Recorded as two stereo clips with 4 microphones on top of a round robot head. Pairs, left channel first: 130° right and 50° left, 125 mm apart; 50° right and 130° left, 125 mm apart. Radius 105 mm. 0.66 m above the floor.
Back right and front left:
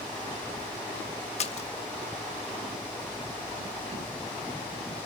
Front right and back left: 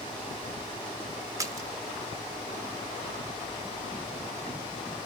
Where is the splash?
165° right, 0.6 m.